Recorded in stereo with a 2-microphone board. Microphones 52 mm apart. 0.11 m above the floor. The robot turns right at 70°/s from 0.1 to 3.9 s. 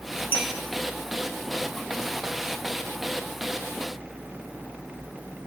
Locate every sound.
0.3 s a clink: 40° right (ahead or behind), 1.8 m; by 0.5 s 50° right (ahead or behind), 1.8 m